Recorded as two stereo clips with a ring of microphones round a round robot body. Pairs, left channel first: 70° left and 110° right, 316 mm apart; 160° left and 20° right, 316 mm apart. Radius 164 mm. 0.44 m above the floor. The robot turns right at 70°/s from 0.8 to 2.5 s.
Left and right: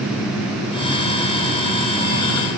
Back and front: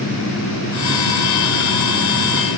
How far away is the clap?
No clap in this recording.